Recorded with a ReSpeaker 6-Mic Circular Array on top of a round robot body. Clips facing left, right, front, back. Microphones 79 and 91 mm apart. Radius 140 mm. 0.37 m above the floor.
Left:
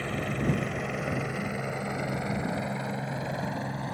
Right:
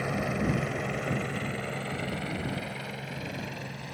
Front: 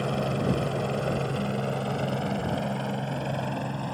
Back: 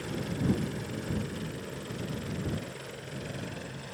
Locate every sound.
0.0 s a helicopter: 10° right; by 3.9 s 40° left